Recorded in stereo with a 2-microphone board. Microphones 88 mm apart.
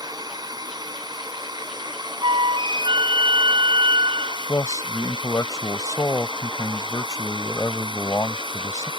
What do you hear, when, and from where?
0.0 s a drone: 50° right (ahead or behind); by 9.0 s 65° right (ahead or behind)
2.2 s a flute: 70° right (ahead or behind)
4.5 s a man speaking: 40° left (ahead or behind)